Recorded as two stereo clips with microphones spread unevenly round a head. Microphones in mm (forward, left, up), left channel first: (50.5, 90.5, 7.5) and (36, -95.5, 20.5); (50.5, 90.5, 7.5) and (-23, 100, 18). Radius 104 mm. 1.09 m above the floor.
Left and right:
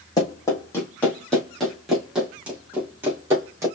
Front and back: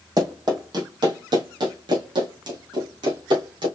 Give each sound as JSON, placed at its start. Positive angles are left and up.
{"t": 0.2, "sound": "running footsteps", "azimuth_deg": 160, "distance_m": 2.5}